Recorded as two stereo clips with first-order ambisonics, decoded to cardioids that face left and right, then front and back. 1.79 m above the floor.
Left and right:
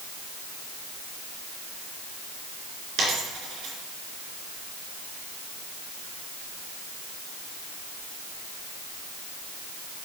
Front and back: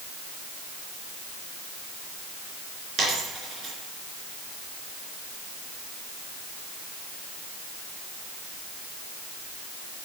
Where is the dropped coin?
125° right, 3 m.